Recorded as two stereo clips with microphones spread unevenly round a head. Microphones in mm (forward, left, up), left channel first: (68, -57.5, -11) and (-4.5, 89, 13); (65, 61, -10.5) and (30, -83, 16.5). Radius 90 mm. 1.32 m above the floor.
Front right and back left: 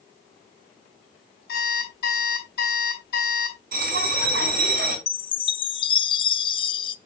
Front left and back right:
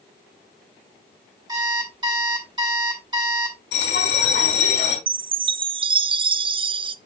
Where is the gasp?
I don't hear a gasp.